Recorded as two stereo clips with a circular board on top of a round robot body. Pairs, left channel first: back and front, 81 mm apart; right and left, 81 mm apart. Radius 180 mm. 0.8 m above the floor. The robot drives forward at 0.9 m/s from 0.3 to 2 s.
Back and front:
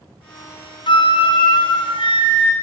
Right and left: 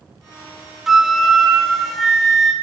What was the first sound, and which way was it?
A flute, 175° left.